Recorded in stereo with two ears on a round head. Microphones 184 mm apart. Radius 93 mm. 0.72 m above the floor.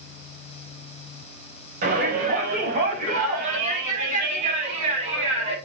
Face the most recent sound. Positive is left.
turn(degrees=-35)  # may be behind; listen again after turning